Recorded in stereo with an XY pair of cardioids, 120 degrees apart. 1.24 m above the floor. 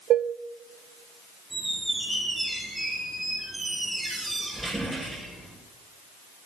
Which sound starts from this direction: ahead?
A squeak, at 1.5 s.